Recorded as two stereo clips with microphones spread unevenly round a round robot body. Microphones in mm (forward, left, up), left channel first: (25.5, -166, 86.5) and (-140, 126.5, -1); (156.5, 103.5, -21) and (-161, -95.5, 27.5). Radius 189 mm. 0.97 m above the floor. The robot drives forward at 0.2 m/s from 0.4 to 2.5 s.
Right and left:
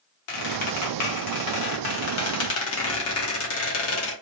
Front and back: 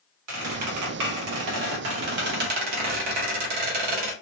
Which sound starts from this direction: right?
A squeak, at 0.3 s.